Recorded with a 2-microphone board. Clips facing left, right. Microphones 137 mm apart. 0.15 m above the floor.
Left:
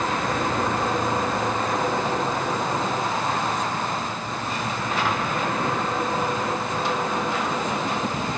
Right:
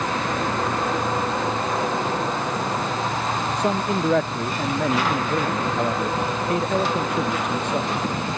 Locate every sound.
3.6 s a man speaking: 65° right (ahead or behind)